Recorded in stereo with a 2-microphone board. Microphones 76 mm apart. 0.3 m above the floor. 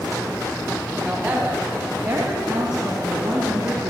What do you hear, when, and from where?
1.0 s a woman speaking: 20° right (ahead or behind), 2.5 m; by 3.9 s 65° right (ahead or behind), 3.5 m